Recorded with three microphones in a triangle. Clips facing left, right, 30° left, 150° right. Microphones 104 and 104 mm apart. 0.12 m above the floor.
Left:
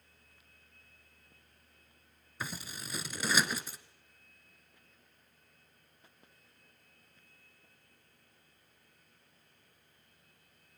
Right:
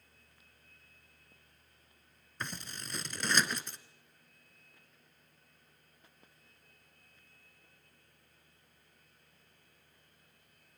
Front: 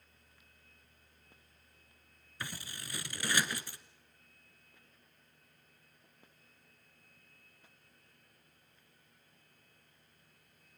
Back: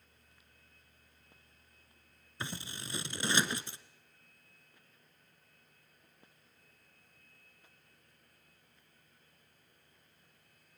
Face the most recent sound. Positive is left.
turn(degrees=170)